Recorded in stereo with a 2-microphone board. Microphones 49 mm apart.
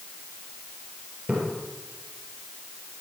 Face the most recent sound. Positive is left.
turn(degrees=-30)  # may be behind; listen again after turning